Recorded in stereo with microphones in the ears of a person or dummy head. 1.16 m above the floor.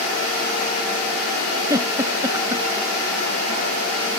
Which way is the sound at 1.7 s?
20° right (ahead or behind).